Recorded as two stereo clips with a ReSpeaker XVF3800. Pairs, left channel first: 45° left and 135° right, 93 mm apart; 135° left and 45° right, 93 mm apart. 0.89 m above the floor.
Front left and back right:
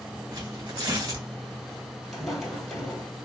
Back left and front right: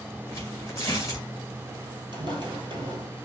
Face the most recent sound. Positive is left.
turn(degrees=-40)